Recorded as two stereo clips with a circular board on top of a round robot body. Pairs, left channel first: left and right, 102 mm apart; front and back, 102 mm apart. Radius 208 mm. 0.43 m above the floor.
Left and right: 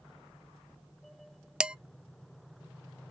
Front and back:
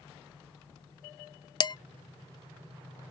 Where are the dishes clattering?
10° right, 0.6 m.